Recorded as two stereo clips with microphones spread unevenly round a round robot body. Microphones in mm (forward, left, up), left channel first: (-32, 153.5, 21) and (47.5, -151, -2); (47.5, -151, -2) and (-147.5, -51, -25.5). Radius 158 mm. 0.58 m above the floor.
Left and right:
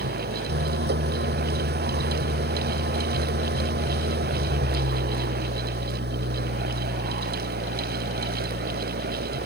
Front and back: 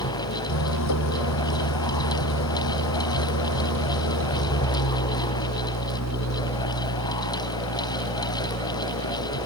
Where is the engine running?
15° right.